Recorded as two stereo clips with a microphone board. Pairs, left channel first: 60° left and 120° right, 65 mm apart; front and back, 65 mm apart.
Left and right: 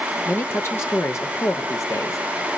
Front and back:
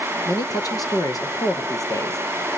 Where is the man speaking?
5° left, 3.5 m; by 2.2 s 25° left, 3.5 m.